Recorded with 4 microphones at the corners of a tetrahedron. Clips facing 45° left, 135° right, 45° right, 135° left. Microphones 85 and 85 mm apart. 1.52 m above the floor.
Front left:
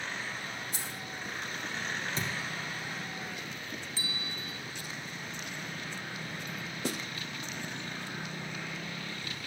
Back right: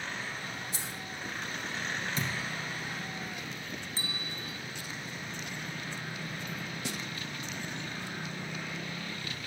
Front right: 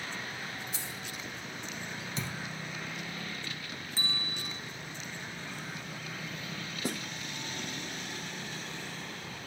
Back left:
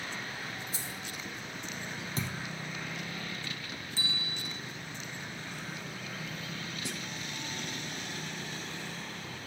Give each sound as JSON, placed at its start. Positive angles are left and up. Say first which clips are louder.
{"t": 0.7, "sound": "keys jangling", "louder": "even, even", "azimuth_deg": 80, "distance_m": 2.0}
{"t": 2.2, "sound": "a thud", "louder": "back right 1 dB, back left 2 dB", "azimuth_deg": 95, "distance_m": 3.0}
{"t": 4.0, "sound": "a bell", "louder": "even, front right 1 dB", "azimuth_deg": -90, "distance_m": 0.9}
{"t": 6.8, "sound": "a snare drum", "louder": "front left 6 dB, front right 8 dB", "azimuth_deg": 0, "distance_m": 0.6}